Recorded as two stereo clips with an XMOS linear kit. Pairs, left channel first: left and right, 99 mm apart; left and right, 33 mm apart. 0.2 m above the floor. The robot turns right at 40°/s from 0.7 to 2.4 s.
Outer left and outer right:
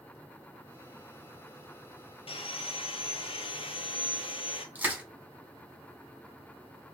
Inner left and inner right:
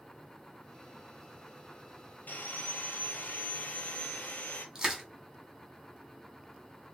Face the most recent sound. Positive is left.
turn(degrees=-20)  # may be behind; listen again after turning